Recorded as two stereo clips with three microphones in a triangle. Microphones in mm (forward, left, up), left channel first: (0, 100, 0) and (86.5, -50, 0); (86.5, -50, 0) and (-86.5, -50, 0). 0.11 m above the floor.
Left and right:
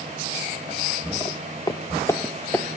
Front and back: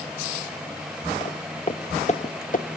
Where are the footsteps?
55° left, 2 m; by 2.7 s 35° left, 1.6 m.